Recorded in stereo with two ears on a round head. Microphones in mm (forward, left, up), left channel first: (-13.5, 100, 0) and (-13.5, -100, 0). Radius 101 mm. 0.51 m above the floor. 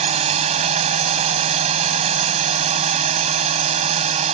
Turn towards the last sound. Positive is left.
turn(degrees=-35)  # may be behind; listen again after turning